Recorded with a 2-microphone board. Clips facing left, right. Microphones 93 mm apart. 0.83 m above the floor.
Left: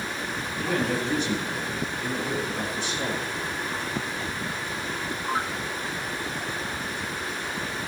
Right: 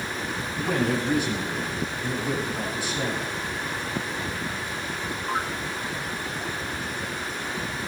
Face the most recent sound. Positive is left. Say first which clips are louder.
# right 2 dB
turn(degrees=-5)  # may be behind; listen again after turning